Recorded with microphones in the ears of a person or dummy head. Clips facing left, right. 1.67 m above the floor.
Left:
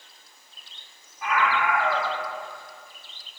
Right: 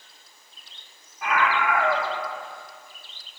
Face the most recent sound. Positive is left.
turn(degrees=-55)  # may be behind; listen again after turning